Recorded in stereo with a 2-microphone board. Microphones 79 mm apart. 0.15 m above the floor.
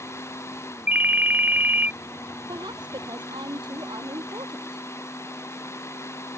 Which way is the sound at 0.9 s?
25° right (ahead or behind).